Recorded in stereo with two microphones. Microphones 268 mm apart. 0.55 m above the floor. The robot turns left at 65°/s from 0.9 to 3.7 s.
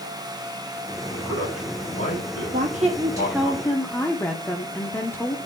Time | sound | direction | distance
1.1 | a man speaking | 5° right (ahead or behind) | 6 m
2.5 | a woman speaking | 120° right | 0.9 m